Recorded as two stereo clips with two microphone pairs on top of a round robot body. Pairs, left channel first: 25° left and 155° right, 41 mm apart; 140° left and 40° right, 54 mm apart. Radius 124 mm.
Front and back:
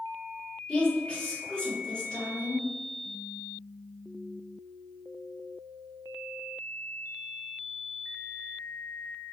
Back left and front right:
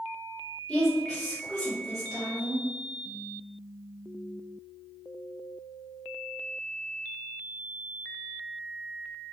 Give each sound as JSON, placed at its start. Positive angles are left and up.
{"t": 0.7, "sound": "a woman speaking", "azimuth_deg": 85, "distance_m": 1.3}